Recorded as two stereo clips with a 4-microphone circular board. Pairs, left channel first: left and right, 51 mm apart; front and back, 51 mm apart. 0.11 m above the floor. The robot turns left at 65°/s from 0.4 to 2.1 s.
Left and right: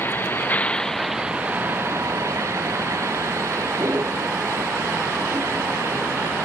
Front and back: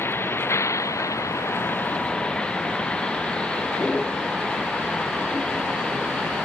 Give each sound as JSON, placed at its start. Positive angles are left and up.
{"t": 0.0, "sound": "a vehicle", "azimuth_deg": 40}